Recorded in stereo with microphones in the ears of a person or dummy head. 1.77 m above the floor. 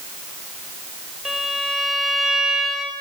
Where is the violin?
5° right (ahead or behind), 1.9 m.